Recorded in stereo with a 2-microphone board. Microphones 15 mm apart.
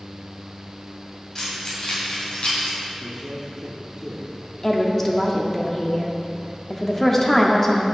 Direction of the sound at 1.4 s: 30° left (ahead or behind).